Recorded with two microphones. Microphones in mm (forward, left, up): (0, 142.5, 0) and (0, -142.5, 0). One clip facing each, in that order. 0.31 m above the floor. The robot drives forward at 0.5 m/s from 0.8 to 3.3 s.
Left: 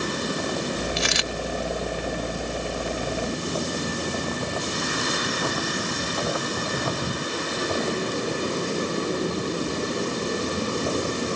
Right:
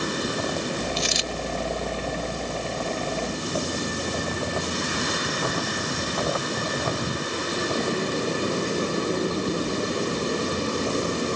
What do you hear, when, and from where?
1.0 s a dropped coin: 70° left (ahead or behind)